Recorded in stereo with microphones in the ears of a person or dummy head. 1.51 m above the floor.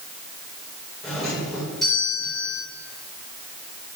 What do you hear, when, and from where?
1.0 s a doorbell: 5° right (ahead or behind), 7.5 m